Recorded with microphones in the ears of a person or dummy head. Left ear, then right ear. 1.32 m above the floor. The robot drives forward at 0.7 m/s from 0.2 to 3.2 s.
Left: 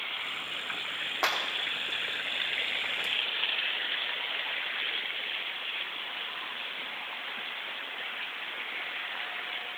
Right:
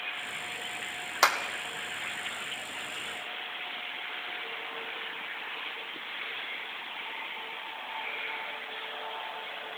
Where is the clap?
75° right (ahead or behind), 2.5 m.